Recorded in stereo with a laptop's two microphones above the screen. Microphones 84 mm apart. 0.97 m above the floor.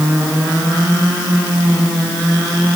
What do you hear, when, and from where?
Only background noise.